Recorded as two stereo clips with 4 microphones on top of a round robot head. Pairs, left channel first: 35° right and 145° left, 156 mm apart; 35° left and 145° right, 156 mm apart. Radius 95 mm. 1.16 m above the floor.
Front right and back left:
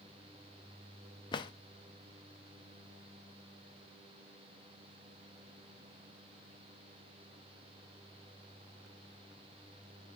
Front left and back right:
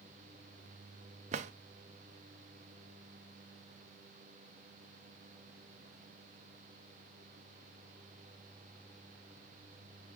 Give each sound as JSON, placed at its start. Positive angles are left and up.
{"t": 1.3, "sound": "a drawer", "azimuth_deg": -100, "distance_m": 0.6}